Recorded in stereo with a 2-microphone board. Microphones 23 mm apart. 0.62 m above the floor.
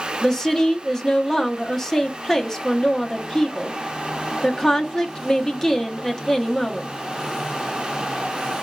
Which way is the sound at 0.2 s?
15° left (ahead or behind).